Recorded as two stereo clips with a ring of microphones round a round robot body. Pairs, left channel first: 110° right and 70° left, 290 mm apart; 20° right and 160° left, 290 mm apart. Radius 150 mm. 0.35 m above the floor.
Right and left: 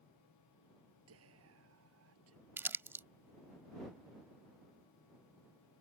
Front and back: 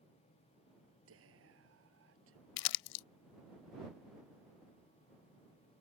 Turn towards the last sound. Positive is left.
turn(degrees=-15)